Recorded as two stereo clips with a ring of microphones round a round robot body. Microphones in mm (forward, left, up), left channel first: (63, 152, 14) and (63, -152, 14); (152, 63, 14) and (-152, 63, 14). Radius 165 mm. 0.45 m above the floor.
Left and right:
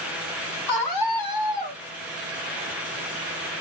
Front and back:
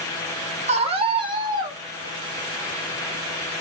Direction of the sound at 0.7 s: 110° left.